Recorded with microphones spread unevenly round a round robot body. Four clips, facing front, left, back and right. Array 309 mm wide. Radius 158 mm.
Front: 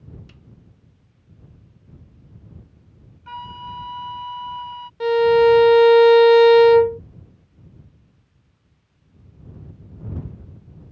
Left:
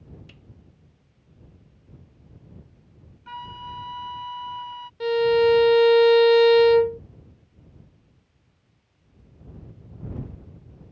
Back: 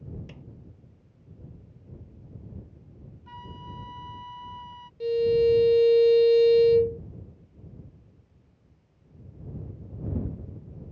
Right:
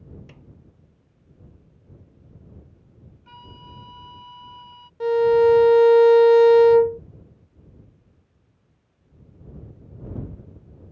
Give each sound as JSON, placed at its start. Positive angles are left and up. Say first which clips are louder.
{"t": 0.3, "sound": "a snare drum", "louder": "right 4 dB, back 5 dB", "azimuth_deg": -150}
{"t": 3.3, "sound": "a flute", "louder": "left 9 dB, front 10 dB", "azimuth_deg": 25}
{"t": 5.0, "sound": "a violin", "louder": "right 3 dB, front 8 dB", "azimuth_deg": -15}